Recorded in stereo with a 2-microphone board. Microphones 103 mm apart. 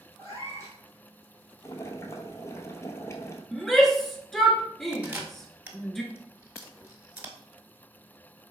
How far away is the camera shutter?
About 0.9 m.